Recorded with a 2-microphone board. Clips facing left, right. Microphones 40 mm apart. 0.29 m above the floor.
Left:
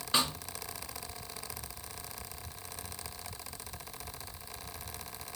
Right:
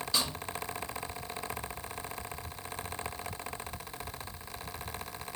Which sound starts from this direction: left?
A snare drum, at 0.1 s.